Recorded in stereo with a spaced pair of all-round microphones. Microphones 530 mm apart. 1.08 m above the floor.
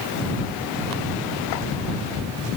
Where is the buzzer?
I don't hear a buzzer.